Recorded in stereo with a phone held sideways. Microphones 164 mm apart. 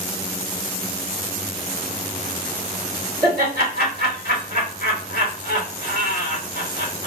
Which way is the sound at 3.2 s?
75° right (ahead or behind).